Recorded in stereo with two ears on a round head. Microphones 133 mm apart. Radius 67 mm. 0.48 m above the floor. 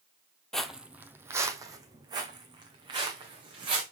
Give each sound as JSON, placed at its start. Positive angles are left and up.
{"t": 0.5, "sound": "footsteps", "side_deg": 5, "distance_m": 0.6}